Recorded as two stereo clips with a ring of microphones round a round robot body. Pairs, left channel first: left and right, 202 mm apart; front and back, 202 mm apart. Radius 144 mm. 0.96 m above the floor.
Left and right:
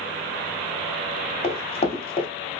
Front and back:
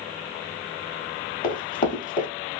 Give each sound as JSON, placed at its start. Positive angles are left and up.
{"t": 1.4, "sound": "running footsteps", "azimuth_deg": 40, "distance_m": 1.5}